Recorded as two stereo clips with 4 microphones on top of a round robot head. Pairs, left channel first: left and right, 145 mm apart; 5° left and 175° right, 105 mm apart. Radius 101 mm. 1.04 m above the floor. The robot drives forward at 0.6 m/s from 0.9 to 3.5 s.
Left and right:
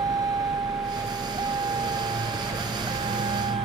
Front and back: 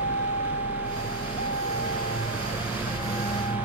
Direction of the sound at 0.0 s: 25° right.